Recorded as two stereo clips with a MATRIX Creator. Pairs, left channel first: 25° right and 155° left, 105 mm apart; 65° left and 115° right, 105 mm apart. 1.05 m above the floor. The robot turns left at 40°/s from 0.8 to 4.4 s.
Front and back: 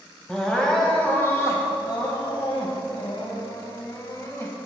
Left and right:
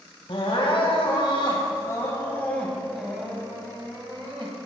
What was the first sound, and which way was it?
Crying, 60° left.